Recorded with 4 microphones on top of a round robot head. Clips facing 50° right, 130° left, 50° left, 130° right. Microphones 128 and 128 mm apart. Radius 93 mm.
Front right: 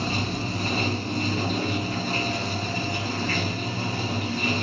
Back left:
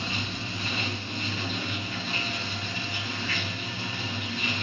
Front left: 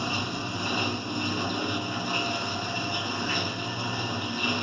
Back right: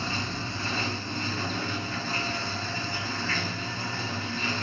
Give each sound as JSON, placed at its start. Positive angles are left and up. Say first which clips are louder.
{"t": 0.0, "sound": "running water", "louder": "front right 7 dB, front left 2 dB", "azimuth_deg": -20, "distance_m": 0.8}